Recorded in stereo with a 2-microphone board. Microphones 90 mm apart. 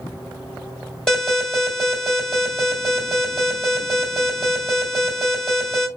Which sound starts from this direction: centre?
An alarm, at 1.1 s.